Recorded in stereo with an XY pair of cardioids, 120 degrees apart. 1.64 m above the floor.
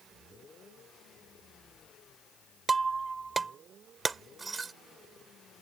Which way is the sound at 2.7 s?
25° right.